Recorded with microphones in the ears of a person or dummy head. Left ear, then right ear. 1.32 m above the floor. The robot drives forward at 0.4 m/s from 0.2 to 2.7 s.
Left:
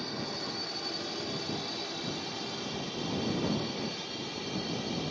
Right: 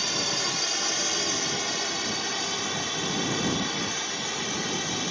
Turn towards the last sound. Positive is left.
turn(degrees=-55)  # may be behind; listen again after turning